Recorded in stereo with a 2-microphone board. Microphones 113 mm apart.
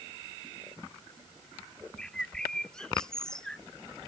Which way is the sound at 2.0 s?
5° left (ahead or behind).